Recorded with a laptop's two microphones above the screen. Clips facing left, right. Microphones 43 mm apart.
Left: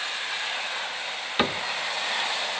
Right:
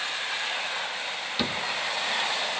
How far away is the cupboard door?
About 0.6 m.